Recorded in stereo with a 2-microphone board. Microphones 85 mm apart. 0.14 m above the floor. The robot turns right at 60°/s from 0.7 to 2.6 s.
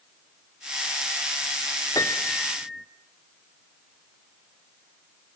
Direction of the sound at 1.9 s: 135° left.